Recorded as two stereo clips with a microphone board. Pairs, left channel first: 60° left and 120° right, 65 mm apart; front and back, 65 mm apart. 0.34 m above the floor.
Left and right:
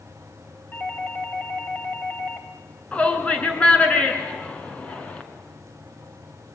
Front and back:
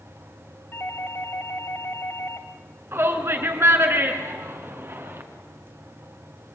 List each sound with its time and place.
0.7 s a doorbell: 20° left, 3 m
2.9 s a shout: 130° left, 4 m